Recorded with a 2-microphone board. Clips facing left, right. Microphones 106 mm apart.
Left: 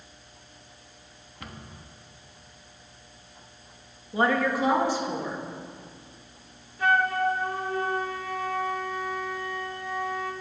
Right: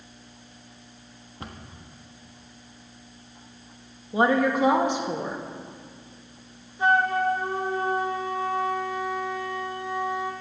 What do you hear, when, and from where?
1.4 s a cupboard door: 30° right (ahead or behind), 1.0 m
4.1 s a woman speaking: 20° right (ahead or behind), 1.0 m
6.8 s a flute: 20° right (ahead or behind), 0.9 m